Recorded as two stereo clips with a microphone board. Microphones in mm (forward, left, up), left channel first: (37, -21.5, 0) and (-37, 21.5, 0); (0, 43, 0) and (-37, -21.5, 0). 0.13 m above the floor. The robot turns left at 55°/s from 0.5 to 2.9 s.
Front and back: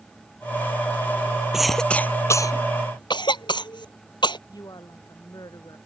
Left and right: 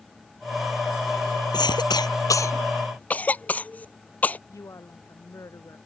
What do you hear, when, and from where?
1.5 s a cough: 65° left; by 4.4 s 5° right
4.5 s a woman speaking: 10° left